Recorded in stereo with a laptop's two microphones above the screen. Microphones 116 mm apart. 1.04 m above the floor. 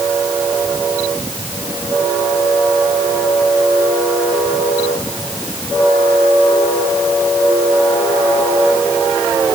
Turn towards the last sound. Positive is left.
No sound to turn to.